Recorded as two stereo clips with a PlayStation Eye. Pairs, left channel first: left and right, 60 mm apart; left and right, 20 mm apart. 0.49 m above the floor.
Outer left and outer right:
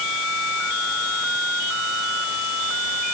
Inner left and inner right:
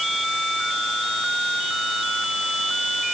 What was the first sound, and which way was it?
Only background noise.